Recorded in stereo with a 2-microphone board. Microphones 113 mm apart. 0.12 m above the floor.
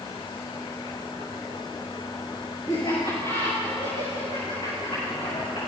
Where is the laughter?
50° left (ahead or behind), 6 m; by 5.7 s 65° left (ahead or behind), 7 m.